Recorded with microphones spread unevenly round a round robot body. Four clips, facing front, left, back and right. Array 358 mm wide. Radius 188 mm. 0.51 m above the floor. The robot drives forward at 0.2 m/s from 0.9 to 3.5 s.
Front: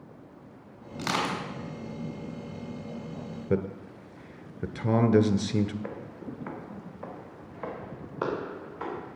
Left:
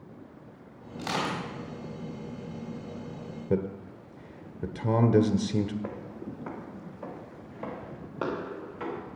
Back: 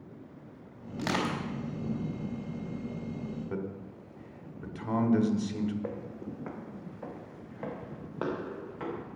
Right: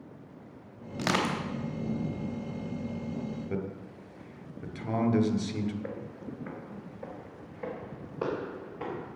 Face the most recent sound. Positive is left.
turn(degrees=145)